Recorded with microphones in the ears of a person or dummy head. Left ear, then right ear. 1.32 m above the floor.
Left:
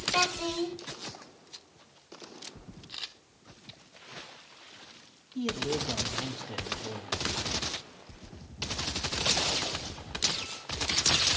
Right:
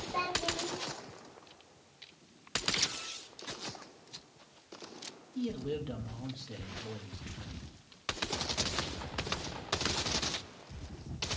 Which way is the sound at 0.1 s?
70° left (ahead or behind).